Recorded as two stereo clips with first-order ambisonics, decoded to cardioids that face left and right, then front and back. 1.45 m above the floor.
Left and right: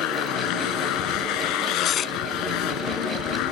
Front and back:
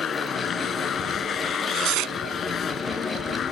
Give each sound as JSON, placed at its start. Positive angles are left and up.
{"t": 0.0, "sound": "a motorcycle", "azimuth_deg": 60}
{"t": 1.5, "sound": "tearing paper", "azimuth_deg": 145}